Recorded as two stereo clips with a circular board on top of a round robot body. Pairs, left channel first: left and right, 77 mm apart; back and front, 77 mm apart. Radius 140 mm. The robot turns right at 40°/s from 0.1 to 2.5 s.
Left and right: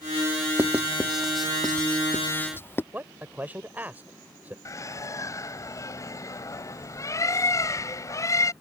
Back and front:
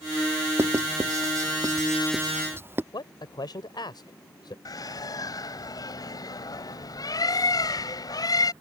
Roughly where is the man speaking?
Behind.